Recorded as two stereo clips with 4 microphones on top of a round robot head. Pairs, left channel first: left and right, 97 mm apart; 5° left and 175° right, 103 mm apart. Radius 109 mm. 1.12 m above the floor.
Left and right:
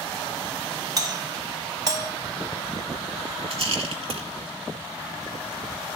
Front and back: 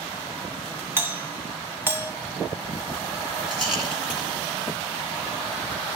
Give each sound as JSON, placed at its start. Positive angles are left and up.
{"t": 1.0, "sound": "a doorbell", "azimuth_deg": -120, "distance_m": 1.3}
{"t": 3.5, "sound": "a rattle", "azimuth_deg": -90, "distance_m": 1.8}